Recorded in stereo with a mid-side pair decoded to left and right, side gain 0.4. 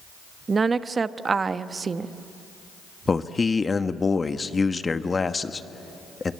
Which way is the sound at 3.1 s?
30° left.